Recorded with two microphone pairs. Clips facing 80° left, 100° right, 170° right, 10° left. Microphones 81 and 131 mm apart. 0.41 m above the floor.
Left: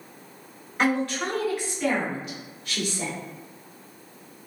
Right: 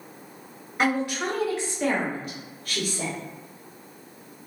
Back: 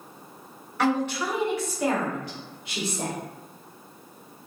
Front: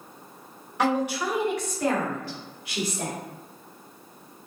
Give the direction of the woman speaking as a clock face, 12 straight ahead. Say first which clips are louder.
Even, even; 1 o'clock.